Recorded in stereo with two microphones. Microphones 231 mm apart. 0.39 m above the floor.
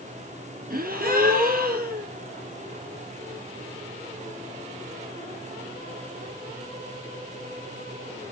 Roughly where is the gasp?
Right.